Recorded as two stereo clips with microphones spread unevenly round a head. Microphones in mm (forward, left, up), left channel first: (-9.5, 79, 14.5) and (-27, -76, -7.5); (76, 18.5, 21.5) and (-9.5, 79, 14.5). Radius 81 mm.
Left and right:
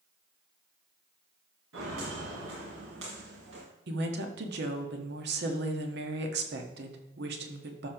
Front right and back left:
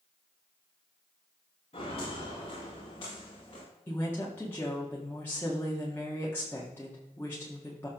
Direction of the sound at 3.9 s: 115° right.